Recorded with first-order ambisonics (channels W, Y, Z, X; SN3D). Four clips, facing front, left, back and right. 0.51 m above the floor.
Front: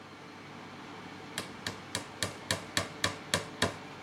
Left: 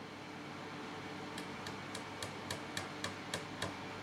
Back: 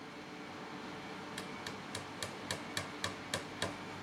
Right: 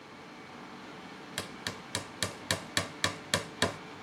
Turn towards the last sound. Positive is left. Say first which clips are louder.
# right 5 dB, front 4 dB
turn(degrees=-55)